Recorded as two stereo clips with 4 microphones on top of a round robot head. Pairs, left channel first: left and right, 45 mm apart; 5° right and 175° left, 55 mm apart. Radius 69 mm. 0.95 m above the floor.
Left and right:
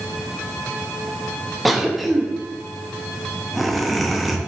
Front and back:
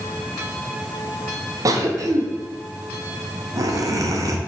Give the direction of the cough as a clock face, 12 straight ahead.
6 o'clock.